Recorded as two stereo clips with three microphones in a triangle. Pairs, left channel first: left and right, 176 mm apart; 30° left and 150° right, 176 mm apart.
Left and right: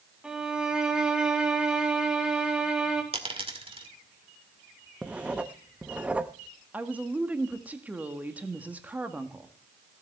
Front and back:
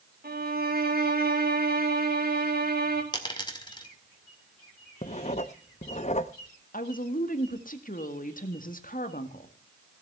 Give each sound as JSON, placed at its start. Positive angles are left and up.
{"t": 0.2, "sound": "a violin", "azimuth_deg": -175, "distance_m": 1.9}
{"t": 3.1, "sound": "a dropped coin", "azimuth_deg": -35, "distance_m": 1.9}
{"t": 5.0, "sound": "writing", "azimuth_deg": -10, "distance_m": 0.8}
{"t": 6.7, "sound": "a woman speaking", "azimuth_deg": -10, "distance_m": 1.6}